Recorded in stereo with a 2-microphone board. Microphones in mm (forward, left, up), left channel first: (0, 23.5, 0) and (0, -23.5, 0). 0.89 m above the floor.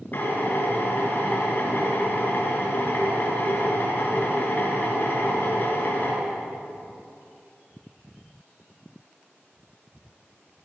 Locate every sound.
0.1 s a drill: 45° left (ahead or behind), 6 m